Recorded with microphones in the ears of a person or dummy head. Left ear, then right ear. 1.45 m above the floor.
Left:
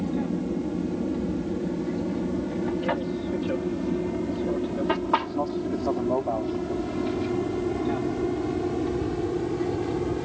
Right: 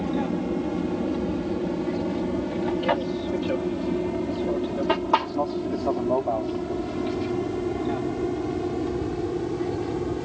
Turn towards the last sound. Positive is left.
turn(degrees=0)  # may be behind; listen again after turning